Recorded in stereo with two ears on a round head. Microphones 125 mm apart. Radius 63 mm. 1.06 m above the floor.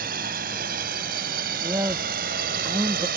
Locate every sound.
0.0 s a drone: 65° right (ahead or behind); by 3.2 s 70° right (ahead or behind)
1.6 s a man speaking: 20° right (ahead or behind)